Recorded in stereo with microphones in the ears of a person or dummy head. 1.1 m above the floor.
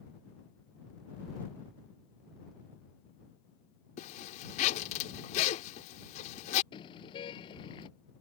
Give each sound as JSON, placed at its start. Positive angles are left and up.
{"t": 4.0, "sound": "a zipper", "side_deg": 45}
{"t": 6.7, "sound": "a car horn", "side_deg": 30}